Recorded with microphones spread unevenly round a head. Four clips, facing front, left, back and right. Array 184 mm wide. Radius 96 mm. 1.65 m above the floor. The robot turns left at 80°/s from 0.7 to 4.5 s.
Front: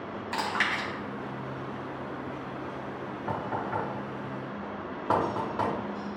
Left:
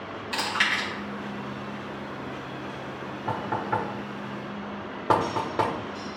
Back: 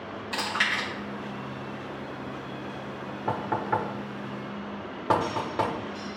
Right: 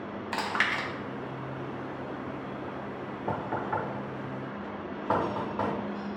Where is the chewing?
90° right, 1.2 m; by 0.9 s 105° right, 1.2 m.